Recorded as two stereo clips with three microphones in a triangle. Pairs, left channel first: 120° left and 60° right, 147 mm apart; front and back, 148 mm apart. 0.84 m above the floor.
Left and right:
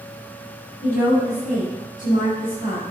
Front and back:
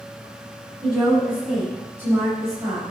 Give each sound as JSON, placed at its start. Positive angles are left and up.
{"t": 0.8, "sound": "a woman speaking", "azimuth_deg": 90, "distance_m": 6.0}